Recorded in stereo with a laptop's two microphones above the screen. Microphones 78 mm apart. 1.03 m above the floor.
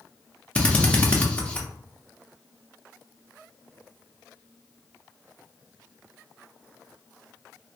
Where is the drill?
15° left (ahead or behind), 0.7 m.